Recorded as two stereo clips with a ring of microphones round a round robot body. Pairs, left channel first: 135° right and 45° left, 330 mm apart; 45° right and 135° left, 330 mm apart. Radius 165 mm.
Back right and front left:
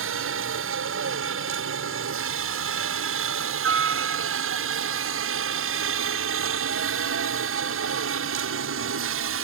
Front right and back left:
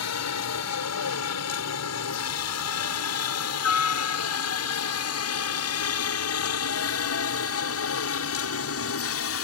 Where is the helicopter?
5° right; by 9.4 s straight ahead.